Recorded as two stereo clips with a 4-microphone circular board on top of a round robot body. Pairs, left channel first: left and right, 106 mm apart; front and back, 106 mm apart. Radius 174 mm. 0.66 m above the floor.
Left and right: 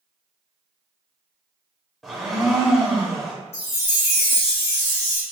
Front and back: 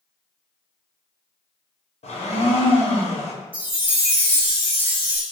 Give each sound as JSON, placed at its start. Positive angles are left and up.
{"t": 2.0, "sound": "a blender", "azimuth_deg": 0, "distance_m": 1.2}
{"t": 3.5, "sound": "a chime", "azimuth_deg": 105, "distance_m": 1.3}